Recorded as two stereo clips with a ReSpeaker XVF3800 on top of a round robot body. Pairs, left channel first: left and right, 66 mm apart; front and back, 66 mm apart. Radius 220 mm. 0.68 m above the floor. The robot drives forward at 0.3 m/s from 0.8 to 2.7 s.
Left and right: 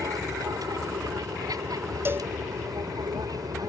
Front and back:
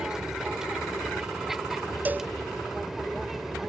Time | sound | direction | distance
0.0 | an aircraft | 100° right | ?
2.0 | a cowbell | 125° right | ?